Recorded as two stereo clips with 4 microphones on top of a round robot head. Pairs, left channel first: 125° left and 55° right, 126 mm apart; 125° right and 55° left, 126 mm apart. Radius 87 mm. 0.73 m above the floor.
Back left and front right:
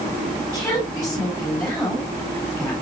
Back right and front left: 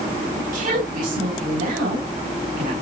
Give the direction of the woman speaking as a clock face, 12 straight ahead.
11 o'clock.